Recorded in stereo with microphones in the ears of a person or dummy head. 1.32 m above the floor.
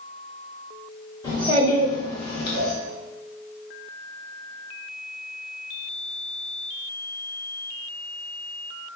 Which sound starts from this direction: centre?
A child speaking, at 1.2 s.